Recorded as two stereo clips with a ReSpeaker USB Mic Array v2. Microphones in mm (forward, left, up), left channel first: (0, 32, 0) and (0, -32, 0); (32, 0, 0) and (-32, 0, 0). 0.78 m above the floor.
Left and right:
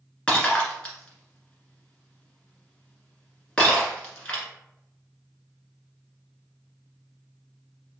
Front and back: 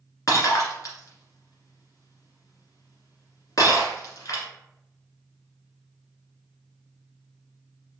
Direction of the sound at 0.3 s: 20° left.